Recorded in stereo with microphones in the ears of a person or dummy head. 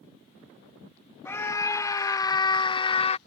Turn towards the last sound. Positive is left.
turn(degrees=40)  # may be behind; listen again after turning